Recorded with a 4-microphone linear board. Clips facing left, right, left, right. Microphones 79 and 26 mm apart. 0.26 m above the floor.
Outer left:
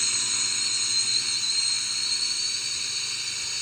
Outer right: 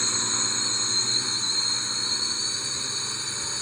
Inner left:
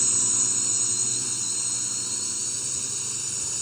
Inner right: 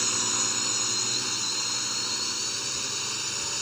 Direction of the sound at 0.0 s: 35° right (ahead or behind).